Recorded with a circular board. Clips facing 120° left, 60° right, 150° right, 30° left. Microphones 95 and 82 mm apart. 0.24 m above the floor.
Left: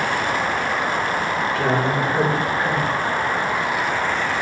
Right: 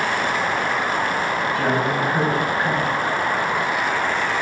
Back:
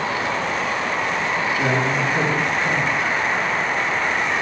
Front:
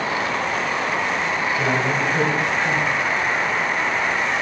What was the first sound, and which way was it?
A man speaking, straight ahead.